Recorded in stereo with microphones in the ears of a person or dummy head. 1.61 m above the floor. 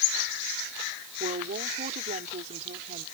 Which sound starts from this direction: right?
A woman speaking, at 1.2 s.